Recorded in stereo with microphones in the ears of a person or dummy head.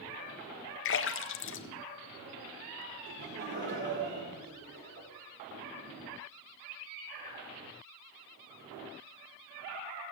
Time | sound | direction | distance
0.8 | a splash | 55° left (ahead or behind) | 0.7 m
3.1 | laughter | 50° right (ahead or behind) | 4 m